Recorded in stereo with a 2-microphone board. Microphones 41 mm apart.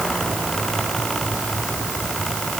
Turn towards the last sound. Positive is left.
No sound to turn to.